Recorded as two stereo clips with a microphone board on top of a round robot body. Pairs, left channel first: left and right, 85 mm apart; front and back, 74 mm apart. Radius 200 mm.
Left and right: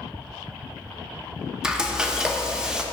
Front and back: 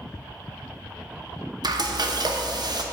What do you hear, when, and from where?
1.6 s frying: 170° right, 0.9 m